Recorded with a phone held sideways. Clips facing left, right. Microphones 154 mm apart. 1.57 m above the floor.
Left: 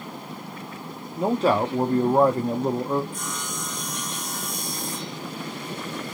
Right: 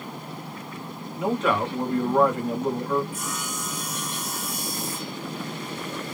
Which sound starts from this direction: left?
A man speaking, at 1.1 s.